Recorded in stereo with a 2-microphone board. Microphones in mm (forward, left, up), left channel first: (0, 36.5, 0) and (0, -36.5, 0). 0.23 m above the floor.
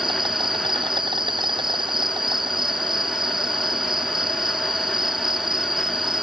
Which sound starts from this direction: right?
An insect, at 0.0 s.